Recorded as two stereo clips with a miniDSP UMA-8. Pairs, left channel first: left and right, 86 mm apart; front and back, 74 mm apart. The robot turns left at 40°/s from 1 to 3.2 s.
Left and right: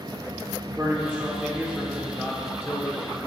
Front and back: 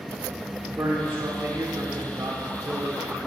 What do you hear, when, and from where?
0.7 s a man speaking: 135° right, 1.1 m; by 3.2 s 140° left, 1.1 m